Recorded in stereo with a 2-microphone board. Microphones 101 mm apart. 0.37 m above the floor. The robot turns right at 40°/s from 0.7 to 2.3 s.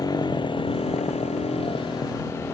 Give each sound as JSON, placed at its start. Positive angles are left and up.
{"t": 0.0, "sound": "a motorcycle", "side_deg": 40}